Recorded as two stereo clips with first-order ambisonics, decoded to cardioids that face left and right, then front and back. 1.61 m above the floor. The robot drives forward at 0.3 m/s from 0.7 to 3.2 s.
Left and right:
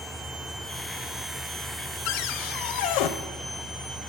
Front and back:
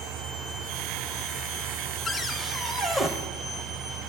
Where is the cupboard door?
75° left, 0.8 m; by 3.1 s 100° left, 0.8 m.